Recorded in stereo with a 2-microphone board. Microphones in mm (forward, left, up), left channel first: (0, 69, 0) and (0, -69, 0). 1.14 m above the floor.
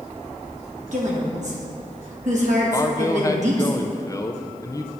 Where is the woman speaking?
60° right (ahead or behind), 1.6 m.